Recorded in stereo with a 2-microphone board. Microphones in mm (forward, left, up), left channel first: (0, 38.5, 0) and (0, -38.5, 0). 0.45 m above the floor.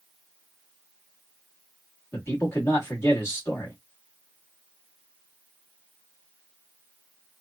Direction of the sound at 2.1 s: 35° left (ahead or behind).